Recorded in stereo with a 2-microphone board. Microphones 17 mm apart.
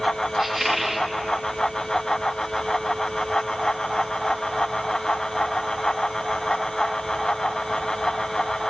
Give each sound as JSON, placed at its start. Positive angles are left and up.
{"t": 0.4, "sound": "a squeak", "side_deg": -20, "distance_m": 1.1}